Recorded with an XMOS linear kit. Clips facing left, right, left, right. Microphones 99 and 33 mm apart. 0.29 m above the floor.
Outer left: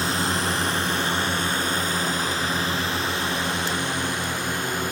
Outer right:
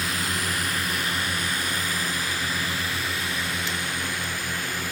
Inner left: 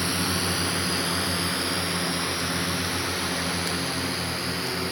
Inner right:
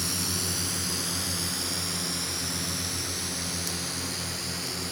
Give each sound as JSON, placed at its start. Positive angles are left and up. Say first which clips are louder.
{"t": 0.0, "sound": "a drone", "louder": "outer left 5 dB, inner left 6 dB", "side_deg": 30}